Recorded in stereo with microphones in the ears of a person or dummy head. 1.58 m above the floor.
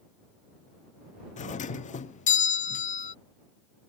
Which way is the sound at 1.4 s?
45° left (ahead or behind).